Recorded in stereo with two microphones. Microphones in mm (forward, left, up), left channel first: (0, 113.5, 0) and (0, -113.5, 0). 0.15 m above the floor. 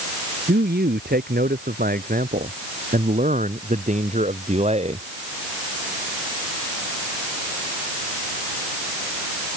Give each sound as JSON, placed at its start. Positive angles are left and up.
{"t": 0.5, "sound": "a man speaking", "side_deg": -45}